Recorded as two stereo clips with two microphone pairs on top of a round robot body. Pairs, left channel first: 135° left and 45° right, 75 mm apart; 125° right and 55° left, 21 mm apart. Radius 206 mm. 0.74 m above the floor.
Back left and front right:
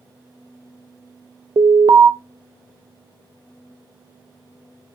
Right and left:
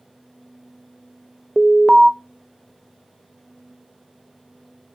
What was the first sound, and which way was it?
An alarm, 25° right.